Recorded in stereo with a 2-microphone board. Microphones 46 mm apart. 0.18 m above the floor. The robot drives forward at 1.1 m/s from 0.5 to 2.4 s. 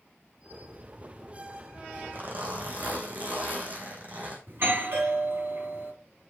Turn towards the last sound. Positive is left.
turn(degrees=-55)  # may be behind; listen again after turning